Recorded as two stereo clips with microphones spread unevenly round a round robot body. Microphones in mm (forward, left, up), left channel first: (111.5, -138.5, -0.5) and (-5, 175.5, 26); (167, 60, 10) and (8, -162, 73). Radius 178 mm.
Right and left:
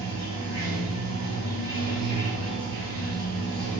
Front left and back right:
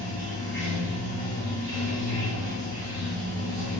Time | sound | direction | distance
0.0 | running water | 135° right | 1.6 m